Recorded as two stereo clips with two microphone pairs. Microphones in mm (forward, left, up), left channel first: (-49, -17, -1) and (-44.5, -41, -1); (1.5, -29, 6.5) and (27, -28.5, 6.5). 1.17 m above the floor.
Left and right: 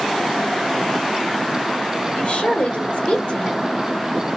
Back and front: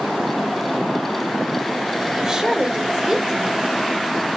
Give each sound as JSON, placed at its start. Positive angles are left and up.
{"t": 2.1, "sound": "a woman speaking", "azimuth_deg": 70, "distance_m": 1.3}